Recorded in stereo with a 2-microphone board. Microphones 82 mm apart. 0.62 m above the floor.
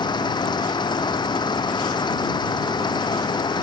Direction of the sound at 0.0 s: 65° left (ahead or behind).